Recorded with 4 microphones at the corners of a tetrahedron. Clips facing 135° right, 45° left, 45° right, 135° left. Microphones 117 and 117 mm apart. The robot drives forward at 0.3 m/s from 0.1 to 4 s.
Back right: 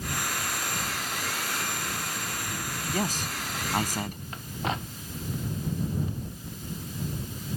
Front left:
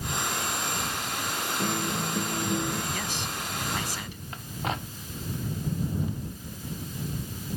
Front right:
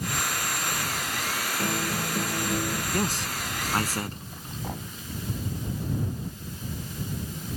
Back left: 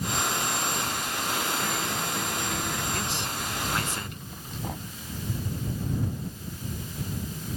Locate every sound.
1.6 s a guitar: 15° left
2.9 s a man speaking: 90° right; by 4.2 s 95° right